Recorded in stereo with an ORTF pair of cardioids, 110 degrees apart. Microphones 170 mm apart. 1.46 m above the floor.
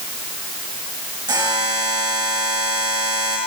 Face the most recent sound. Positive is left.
turn(degrees=-25)